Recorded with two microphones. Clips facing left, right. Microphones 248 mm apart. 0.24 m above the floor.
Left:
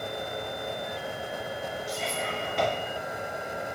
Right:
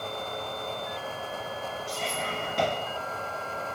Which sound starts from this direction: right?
Whispering, at 1.9 s.